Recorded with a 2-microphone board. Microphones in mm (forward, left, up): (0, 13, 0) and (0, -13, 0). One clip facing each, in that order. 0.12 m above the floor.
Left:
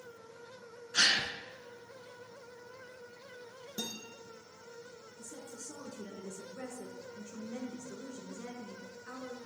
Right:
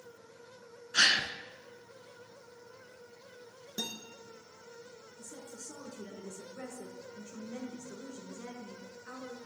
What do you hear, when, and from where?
0.9 s a gasp: 20° right (ahead or behind), 0.7 m
3.8 s a guitar: 30° right (ahead or behind), 1.4 m
5.2 s a woman speaking: 15° right (ahead or behind), 1.6 m